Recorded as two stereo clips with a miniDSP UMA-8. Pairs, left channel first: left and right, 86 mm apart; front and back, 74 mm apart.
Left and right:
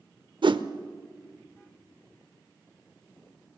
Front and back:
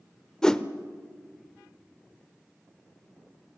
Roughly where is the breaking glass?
No breaking glass in this recording.